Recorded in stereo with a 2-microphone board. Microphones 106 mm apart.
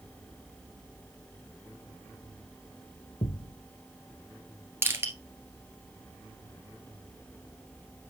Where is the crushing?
25° right (ahead or behind), 1.6 m.